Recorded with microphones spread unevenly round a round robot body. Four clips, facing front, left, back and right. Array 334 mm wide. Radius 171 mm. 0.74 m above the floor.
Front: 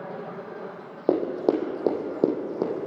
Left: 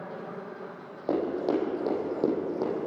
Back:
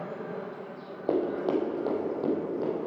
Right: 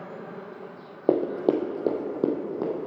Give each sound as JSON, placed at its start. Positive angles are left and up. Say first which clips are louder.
{"t": 1.1, "sound": "running footsteps", "louder": "right 4 dB, front 4 dB", "azimuth_deg": -55, "distance_m": 1.8}